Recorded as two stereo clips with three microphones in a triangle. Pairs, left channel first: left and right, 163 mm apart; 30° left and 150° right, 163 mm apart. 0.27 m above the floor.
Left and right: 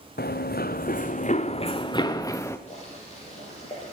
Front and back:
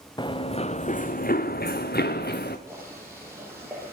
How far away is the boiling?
About 7 m.